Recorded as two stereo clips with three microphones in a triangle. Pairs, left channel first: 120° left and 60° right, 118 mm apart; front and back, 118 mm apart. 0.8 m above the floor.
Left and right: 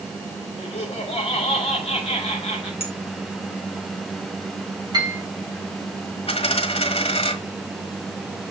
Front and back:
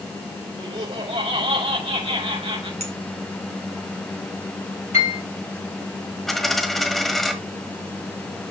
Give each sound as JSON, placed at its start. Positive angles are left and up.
{"t": 0.6, "sound": "laughter", "azimuth_deg": 155, "distance_m": 4.0}
{"t": 2.8, "sound": "a clink", "azimuth_deg": 155, "distance_m": 1.8}
{"t": 4.9, "sound": "a piano", "azimuth_deg": -10, "distance_m": 3.0}
{"t": 6.3, "sound": "a dropped coin", "azimuth_deg": 90, "distance_m": 1.5}